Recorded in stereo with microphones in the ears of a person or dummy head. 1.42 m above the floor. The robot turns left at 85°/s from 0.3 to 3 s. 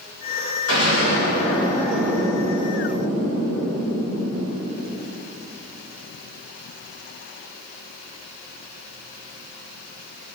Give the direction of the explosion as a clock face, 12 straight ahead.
8 o'clock.